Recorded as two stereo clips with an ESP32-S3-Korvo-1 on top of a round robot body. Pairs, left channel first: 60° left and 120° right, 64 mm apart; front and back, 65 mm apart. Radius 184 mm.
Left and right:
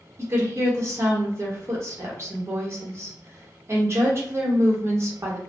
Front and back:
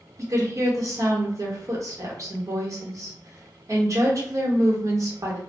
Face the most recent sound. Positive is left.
turn(degrees=-160)